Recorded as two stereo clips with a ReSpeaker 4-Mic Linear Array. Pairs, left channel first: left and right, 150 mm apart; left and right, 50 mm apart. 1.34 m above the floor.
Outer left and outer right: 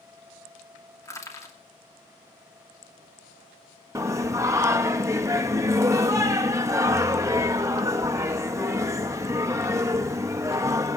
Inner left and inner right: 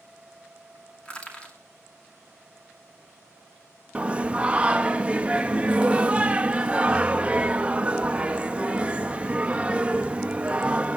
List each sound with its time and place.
1.1 s crushing: 20° left (ahead or behind), 2.5 m
4.0 s singing: 20° right (ahead or behind), 0.7 m